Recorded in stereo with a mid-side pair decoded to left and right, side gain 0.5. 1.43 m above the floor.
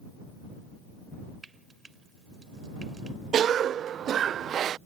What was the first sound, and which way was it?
Frying, 25° right.